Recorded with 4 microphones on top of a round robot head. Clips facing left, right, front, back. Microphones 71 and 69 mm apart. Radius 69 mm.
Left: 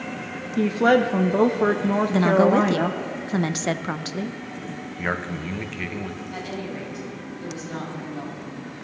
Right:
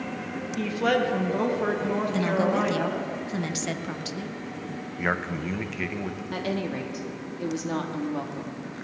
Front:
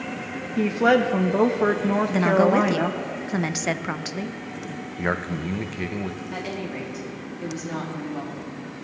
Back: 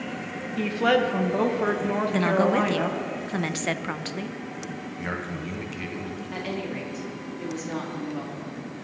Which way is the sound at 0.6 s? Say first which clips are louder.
Left 6 dB, front 3 dB; 65° left.